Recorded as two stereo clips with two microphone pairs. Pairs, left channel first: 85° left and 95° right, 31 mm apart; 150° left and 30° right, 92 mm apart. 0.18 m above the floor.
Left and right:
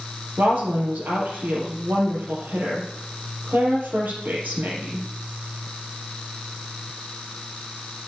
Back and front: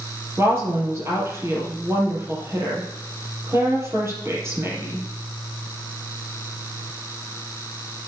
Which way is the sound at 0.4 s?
95° right.